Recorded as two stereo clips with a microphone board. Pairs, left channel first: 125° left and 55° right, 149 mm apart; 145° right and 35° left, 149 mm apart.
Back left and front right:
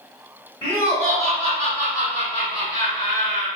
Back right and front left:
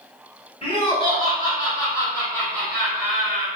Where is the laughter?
165° right, 1.5 m; by 3.5 s 100° left, 1.2 m.